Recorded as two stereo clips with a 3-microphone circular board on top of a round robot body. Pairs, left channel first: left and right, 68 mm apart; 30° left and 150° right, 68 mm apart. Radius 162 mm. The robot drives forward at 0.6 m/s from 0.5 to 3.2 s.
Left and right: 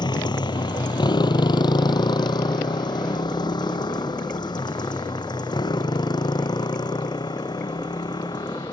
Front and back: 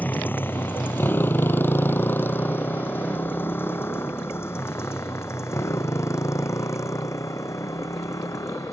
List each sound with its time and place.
0.0 s a motorcycle: 95° left; by 8.7 s 75° left